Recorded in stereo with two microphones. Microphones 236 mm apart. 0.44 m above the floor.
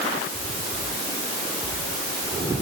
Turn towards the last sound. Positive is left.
No sound to turn to.